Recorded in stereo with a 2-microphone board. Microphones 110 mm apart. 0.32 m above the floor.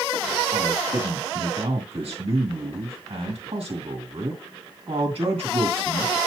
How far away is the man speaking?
About 2.5 m.